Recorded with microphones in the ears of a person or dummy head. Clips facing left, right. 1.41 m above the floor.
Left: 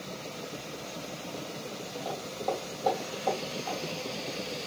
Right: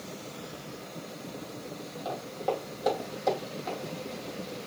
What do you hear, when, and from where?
2.0 s footsteps: 5° right (ahead or behind), 3 m; by 3.8 s 30° right (ahead or behind), 3 m